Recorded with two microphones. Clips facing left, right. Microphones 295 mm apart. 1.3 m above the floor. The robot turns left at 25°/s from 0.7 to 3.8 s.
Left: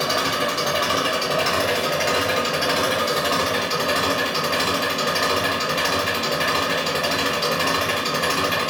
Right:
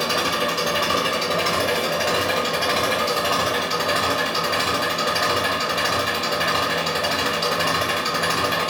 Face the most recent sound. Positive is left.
turn(degrees=140)